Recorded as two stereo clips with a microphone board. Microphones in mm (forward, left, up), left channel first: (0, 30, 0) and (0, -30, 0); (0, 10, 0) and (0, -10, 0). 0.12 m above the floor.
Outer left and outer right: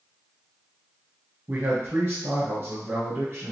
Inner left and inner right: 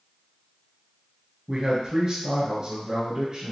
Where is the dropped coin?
I don't hear a dropped coin.